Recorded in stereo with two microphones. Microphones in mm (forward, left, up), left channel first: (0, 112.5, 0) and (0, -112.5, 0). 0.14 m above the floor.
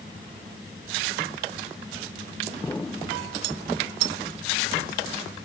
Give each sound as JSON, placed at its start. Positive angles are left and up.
{"t": 2.6, "sound": "an explosion", "side_deg": 10}